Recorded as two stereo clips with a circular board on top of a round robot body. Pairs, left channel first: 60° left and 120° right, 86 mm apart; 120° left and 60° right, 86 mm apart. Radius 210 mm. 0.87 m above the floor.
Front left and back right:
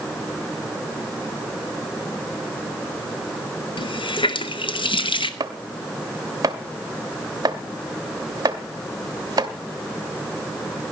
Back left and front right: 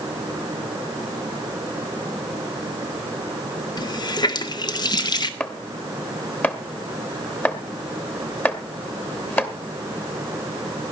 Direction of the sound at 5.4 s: 170° right.